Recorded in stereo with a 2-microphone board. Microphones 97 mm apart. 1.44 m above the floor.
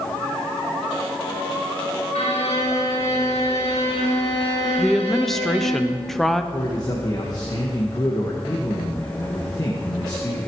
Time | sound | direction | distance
2.1 | a violin | 75° left (ahead or behind) | 2.5 m
4.8 | a woman speaking | 5° left (ahead or behind) | 0.8 m
6.5 | a man speaking | 40° left (ahead or behind) | 1.5 m